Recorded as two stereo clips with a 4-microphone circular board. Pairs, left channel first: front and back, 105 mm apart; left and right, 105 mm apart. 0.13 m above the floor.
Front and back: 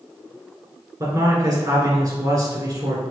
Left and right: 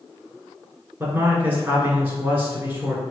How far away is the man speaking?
About 1.7 m.